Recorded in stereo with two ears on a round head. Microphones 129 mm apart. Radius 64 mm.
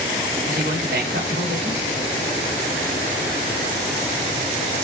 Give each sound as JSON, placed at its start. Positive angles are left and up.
{"t": 0.5, "sound": "a man speaking", "side_deg": -80, "distance_m": 3.5}